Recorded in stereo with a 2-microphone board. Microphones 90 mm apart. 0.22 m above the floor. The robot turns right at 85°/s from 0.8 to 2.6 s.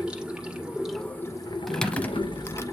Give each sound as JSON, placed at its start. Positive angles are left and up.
{"t": 0.0, "sound": "running water", "azimuth_deg": -10, "distance_m": 1.8}
{"t": 1.7, "sound": "typing on a keyboard", "side_deg": 0, "distance_m": 0.7}